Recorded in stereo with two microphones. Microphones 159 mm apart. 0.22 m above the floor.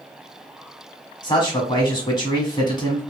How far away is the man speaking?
About 1.3 m.